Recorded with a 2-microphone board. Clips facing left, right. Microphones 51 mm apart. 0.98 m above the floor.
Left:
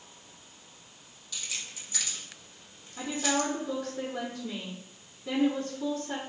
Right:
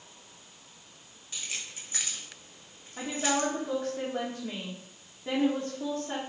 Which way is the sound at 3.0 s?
40° right (ahead or behind).